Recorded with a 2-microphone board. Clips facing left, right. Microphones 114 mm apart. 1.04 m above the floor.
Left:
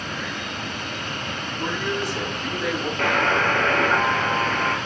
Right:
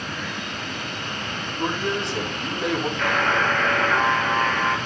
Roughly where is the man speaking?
Right.